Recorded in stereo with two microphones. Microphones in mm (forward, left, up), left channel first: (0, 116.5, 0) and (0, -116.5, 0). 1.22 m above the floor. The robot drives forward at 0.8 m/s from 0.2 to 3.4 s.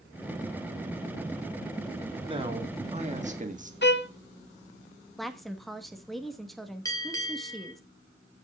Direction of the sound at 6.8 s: 15° left (ahead or behind).